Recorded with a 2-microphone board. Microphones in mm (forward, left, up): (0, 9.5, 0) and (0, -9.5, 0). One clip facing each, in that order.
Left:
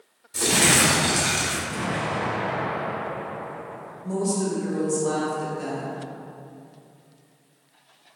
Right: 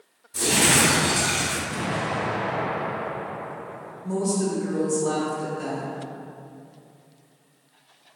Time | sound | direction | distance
0.3 | crumpling | 40° left (ahead or behind) | 1.1 m
1.7 | an explosion | 15° right (ahead or behind) | 1.1 m
4.0 | a woman speaking | 5° left (ahead or behind) | 0.8 m